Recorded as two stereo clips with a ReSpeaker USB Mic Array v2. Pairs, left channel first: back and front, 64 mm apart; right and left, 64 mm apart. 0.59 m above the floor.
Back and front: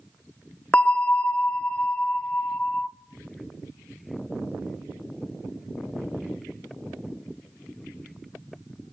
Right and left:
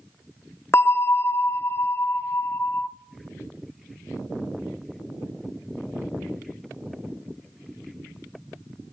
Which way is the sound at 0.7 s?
120° right.